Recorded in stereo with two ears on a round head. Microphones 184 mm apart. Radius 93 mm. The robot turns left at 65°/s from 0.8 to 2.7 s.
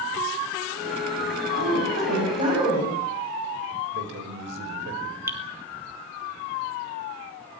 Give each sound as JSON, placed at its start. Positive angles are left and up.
{"t": 1.5, "sound": "a woman speaking", "azimuth_deg": -90, "distance_m": 10.0}
{"t": 3.9, "sound": "a man speaking", "side_deg": -60, "distance_m": 5.5}
{"t": 5.3, "sound": "dripping", "side_deg": -15, "distance_m": 3.5}